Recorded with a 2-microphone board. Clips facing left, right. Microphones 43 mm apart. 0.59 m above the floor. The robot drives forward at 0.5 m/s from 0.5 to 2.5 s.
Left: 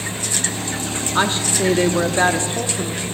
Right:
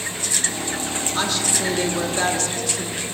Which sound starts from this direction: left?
A woman speaking, at 1.1 s.